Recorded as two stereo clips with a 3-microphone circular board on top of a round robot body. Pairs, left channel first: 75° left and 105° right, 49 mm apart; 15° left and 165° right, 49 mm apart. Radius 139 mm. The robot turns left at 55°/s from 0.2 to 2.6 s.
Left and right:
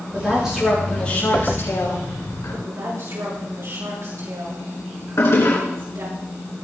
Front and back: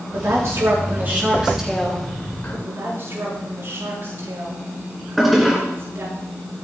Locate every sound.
0.1 s a woman speaking: 170° right, 7 m; by 2.5 s 60° left, 7 m
2.6 s a woman speaking: 125° right, 8 m
5.2 s a toilet flushing: 105° left, 5.5 m